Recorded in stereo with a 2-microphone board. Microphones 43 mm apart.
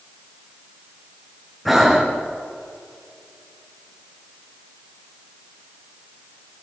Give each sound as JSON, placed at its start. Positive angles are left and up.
{"t": 1.6, "sound": "breathing", "side_deg": -5, "distance_m": 2.5}